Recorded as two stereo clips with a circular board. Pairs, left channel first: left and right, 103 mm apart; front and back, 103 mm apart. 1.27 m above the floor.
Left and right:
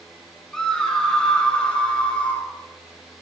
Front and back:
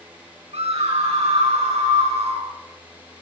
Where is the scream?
175° left, 6.5 m; by 2.5 s 170° left, 7.5 m.